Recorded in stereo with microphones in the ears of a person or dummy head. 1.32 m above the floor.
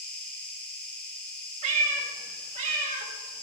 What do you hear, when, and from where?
0.0 s an insect: 5° left (ahead or behind), 1.4 m
1.6 s a cat meowing: 40° right (ahead or behind), 1.0 m